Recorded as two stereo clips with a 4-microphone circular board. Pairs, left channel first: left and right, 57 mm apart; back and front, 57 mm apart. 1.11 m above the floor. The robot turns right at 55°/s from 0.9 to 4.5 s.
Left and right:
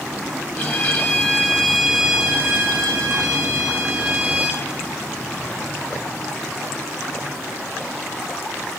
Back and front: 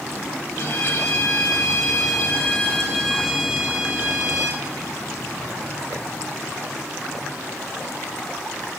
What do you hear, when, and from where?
0.6 s a violin: 135° left, 1.7 m; by 4.6 s 25° right, 1.7 m